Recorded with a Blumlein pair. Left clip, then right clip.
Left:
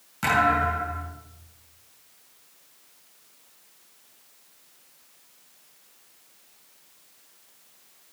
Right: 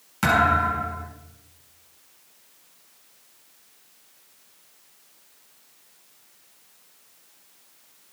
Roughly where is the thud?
Ahead.